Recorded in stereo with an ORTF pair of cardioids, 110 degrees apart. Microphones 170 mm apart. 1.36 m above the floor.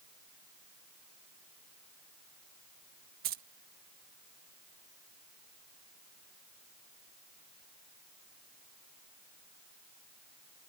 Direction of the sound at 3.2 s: 65° right.